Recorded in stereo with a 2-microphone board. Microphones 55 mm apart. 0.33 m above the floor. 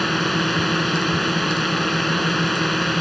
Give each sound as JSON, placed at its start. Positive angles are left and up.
{"t": 0.0, "sound": "a drone", "side_deg": 0}